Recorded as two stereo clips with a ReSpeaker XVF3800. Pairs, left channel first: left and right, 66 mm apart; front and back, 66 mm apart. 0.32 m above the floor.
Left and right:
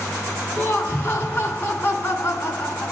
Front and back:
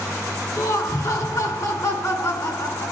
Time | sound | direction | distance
0.6 | laughter | 30° left | 3.5 m